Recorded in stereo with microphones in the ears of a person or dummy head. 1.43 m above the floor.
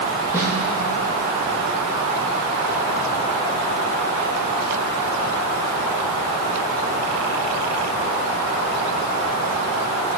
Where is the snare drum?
20° right (ahead or behind), 6.5 m.